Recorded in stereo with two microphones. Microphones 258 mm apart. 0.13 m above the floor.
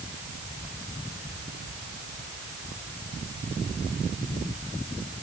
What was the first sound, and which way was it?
Only background noise.